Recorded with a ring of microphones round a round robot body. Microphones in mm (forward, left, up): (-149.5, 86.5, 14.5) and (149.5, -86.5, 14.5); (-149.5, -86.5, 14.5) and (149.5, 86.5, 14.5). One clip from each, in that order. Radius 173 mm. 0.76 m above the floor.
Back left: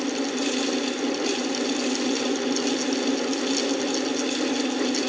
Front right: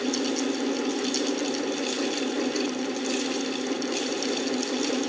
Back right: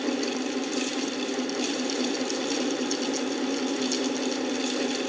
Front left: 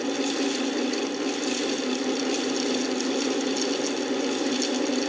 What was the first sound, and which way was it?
Only background noise.